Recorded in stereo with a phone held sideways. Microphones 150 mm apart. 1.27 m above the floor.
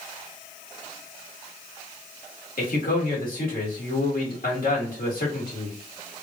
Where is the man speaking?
75° left (ahead or behind), 1.6 m.